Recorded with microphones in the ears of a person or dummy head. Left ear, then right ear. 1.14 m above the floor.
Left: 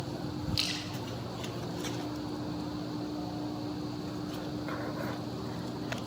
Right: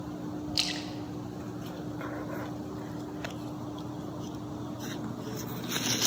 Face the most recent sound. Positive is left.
turn(degrees=-10)  # may be behind; listen again after turning